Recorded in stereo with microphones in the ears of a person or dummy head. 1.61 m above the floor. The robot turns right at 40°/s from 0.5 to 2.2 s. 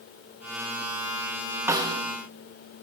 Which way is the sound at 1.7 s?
20° right (ahead or behind).